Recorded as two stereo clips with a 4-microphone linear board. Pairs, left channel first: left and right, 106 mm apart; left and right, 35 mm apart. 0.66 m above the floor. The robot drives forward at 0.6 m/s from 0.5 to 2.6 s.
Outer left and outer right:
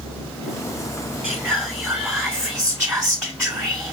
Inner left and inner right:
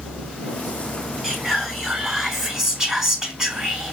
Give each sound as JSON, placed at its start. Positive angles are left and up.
{"t": 1.2, "sound": "whispering", "side_deg": 0, "distance_m": 1.6}